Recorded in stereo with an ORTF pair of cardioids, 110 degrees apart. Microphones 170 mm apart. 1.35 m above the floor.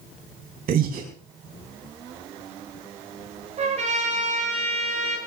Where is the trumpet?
40° right, 9.5 m.